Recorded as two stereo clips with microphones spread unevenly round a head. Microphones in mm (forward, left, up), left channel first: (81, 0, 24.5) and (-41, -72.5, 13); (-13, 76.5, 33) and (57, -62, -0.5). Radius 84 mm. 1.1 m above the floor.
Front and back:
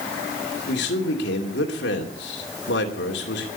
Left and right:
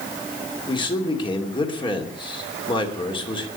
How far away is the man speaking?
About 2.5 m.